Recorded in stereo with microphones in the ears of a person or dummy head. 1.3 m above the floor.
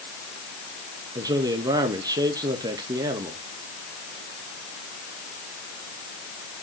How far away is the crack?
I don't hear a crack.